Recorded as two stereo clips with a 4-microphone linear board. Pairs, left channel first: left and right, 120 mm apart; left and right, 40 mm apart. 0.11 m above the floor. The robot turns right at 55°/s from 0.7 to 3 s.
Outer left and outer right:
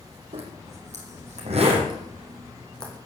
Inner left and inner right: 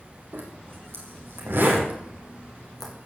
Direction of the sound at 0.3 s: 65° right (ahead or behind).